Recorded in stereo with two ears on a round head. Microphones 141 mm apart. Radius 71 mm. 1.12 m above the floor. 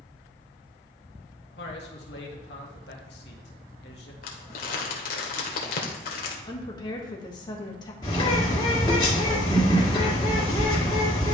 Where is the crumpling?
60° left (ahead or behind), 1.5 m.